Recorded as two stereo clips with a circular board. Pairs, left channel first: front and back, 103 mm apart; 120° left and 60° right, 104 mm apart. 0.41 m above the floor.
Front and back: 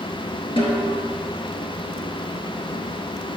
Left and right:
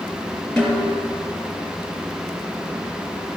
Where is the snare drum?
35° left, 4 m.